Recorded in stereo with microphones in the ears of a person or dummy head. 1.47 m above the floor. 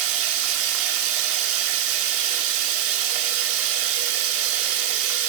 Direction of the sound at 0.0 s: 70° right (ahead or behind).